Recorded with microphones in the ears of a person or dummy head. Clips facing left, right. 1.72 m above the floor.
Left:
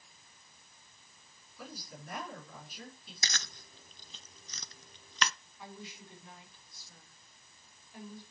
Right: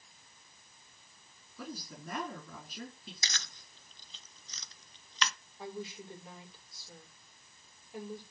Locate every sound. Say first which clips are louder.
1.6 s a woman speaking: right 4 dB; 65° right (ahead or behind), 4.5 m
3.2 s chewing: left 7 dB; 45° left (ahead or behind), 0.6 m
5.6 s a woman speaking: right 7 dB; 35° right (ahead or behind), 6 m